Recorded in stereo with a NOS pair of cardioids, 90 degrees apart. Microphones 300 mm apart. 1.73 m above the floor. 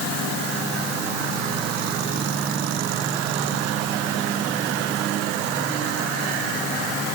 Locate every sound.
Only background noise.